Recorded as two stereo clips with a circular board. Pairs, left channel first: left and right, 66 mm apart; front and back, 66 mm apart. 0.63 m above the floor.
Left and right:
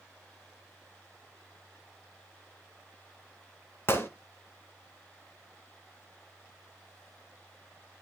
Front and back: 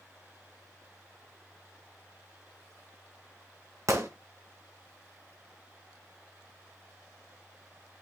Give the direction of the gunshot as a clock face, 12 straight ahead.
7 o'clock.